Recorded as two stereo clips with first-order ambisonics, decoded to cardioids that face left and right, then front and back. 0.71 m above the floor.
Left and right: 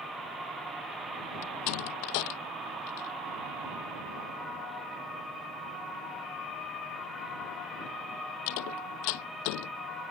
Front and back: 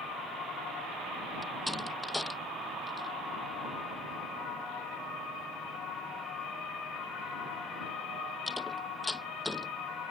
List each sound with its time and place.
1.4 s a door slam: 85° left